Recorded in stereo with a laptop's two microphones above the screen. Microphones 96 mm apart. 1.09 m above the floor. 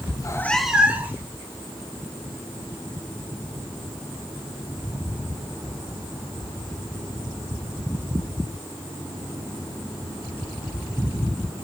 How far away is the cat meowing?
About 0.6 m.